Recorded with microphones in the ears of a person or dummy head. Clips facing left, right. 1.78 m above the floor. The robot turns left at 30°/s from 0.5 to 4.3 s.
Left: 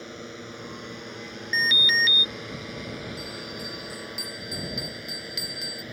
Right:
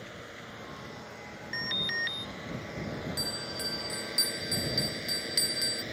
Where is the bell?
145° right; by 5.8 s straight behind.